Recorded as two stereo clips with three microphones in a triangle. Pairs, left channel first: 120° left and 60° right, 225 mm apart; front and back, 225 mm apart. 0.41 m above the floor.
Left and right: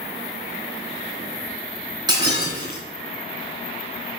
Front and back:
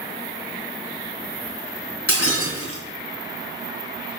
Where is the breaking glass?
10° left, 3 m.